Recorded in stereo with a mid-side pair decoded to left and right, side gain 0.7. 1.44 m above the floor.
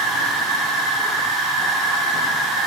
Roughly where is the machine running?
Ahead right.